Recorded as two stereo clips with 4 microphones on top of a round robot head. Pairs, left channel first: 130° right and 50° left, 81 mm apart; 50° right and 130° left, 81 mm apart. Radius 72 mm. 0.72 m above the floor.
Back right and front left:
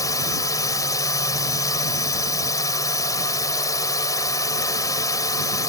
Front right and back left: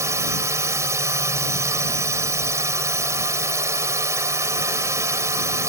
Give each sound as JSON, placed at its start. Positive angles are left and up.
{"t": 0.0, "sound": "a drone", "azimuth_deg": -175}